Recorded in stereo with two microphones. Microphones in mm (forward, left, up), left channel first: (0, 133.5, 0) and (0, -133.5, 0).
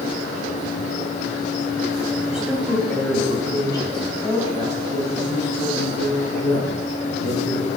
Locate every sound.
2.3 s a woman speaking: 5° right (ahead or behind), 2.5 m; by 7.7 s 55° left (ahead or behind), 3 m